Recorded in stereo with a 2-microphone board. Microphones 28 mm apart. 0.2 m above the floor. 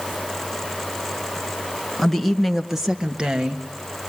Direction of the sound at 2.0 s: 5° left (ahead or behind).